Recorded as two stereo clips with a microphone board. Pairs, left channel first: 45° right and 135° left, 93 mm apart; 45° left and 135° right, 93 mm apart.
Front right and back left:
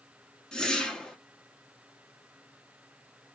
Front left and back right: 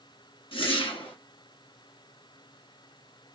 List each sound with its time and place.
0.5 s a whoosh: 35° left, 1.0 m